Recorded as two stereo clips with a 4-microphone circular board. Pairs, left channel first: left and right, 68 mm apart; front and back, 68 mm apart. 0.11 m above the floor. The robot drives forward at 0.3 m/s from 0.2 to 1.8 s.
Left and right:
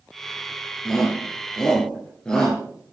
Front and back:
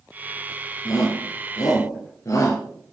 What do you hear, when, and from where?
0.8 s a shout: 10° left, 2 m; by 2.6 s 15° left, 1.8 m